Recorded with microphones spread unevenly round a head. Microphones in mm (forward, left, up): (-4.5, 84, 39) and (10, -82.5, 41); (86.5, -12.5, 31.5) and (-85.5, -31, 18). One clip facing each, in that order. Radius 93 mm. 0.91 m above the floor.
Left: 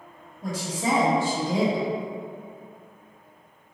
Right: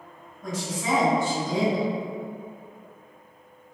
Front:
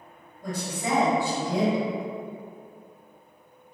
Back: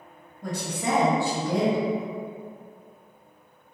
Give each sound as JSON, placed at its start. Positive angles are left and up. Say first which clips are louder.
{"t": 0.4, "sound": "a woman speaking", "louder": "left 2 dB, back 1 dB", "azimuth_deg": 155, "distance_m": 1.1}